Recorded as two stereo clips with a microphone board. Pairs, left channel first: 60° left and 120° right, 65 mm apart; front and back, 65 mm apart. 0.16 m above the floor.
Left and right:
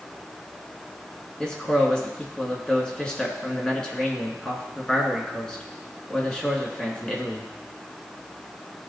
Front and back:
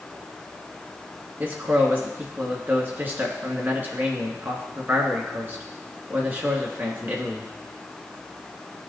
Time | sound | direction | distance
1.4 | a man speaking | 130° left | 2 m